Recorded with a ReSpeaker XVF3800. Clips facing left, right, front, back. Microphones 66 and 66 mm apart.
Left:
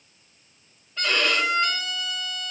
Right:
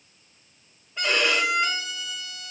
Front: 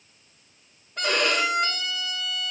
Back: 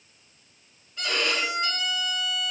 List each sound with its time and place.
1.0 s a violin: 15° right, 0.9 m